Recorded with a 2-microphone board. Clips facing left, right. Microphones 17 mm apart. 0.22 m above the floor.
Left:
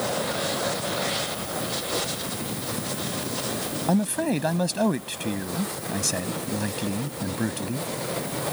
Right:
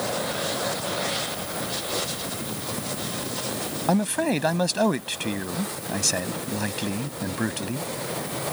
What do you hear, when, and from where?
3.9 s a man speaking: 20° right (ahead or behind)